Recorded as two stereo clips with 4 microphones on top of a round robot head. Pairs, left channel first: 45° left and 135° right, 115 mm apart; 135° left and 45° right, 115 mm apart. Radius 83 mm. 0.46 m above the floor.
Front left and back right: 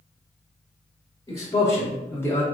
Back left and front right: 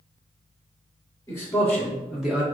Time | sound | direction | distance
1.3 | a man speaking | 85° left | 1.4 m